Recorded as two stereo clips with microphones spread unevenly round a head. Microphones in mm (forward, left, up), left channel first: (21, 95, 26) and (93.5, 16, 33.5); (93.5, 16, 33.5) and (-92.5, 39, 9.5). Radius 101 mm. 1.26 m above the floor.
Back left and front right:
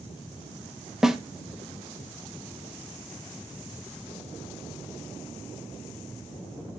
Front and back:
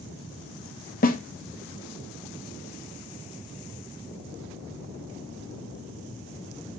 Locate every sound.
1.0 s a snare drum: 40° left, 1.4 m